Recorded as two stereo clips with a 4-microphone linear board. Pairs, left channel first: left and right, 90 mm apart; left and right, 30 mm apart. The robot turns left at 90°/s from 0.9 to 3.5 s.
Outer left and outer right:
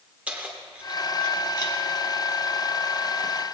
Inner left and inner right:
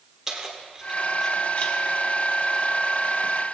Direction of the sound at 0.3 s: 15° right (ahead or behind).